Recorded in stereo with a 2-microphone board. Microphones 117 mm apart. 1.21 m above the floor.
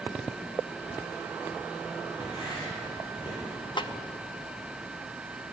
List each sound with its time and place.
2.2 s writing: 45° left (ahead or behind), 9.5 m
3.8 s a snare drum: 40° left (ahead or behind), 0.8 m